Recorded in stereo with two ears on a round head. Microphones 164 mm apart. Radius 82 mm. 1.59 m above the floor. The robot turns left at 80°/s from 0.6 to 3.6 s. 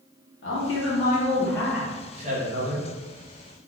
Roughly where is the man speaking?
Left.